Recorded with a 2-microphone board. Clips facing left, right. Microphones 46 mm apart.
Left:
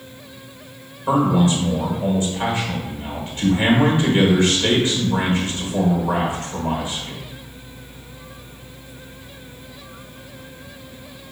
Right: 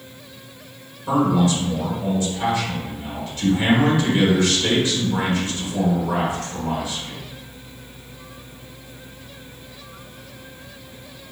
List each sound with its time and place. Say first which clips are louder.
1.1 s a man speaking: left 1 dB; 25° left (ahead or behind), 1.6 m